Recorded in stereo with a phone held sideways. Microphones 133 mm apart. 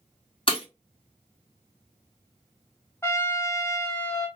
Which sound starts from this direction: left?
Breaking glass, at 0.5 s.